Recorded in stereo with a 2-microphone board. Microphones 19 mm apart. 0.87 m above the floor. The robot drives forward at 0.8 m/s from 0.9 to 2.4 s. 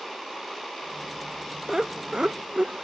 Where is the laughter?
40° right (ahead or behind), 0.6 m; by 2.8 s 55° right (ahead or behind), 0.5 m.